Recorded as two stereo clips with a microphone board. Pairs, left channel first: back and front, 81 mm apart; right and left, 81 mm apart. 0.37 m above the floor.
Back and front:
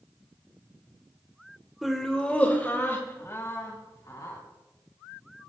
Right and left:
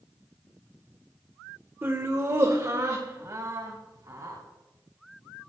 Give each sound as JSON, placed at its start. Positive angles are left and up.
{"t": 1.8, "sound": "laughter", "azimuth_deg": 85, "distance_m": 0.9}